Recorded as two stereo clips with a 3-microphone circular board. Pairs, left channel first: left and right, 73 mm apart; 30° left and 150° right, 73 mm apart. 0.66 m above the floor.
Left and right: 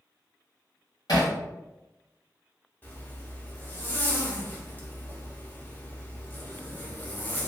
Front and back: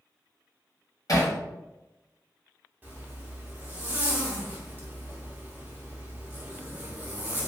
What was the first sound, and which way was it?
Hammering, 65° left.